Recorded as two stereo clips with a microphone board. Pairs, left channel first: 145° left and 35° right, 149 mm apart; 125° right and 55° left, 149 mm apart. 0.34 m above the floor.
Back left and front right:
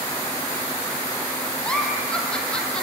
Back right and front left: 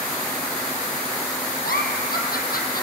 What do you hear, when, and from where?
1.6 s a giggle: 130° right, 2.5 m